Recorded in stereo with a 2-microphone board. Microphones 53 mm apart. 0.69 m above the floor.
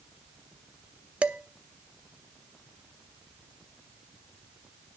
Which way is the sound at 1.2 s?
25° right (ahead or behind).